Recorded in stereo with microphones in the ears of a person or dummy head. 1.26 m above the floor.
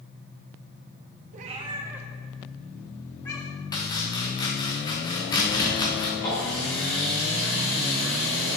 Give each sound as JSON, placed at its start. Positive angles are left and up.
{"t": 1.3, "sound": "a cat meowing", "side_deg": -45, "distance_m": 0.8}
{"t": 3.7, "sound": "chopping", "side_deg": 25, "distance_m": 1.1}
{"t": 6.2, "sound": "a running tap", "side_deg": 25, "distance_m": 3.0}